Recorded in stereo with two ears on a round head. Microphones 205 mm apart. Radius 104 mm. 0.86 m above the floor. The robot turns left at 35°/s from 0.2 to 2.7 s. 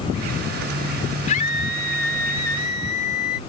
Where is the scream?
145° left; by 3.4 s 95° left.